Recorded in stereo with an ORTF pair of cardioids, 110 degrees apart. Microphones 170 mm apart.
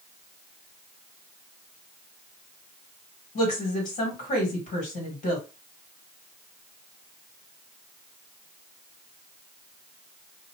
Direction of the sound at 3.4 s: 55° left.